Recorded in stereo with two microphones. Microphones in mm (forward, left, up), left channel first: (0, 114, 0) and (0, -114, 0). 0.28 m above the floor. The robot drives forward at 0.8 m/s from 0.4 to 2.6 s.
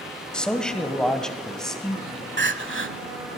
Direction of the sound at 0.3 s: 5° left (ahead or behind).